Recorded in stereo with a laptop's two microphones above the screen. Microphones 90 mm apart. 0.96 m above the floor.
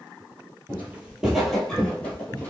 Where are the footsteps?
25° right (ahead or behind), 1.1 m; by 2.5 s 20° left (ahead or behind), 1.4 m.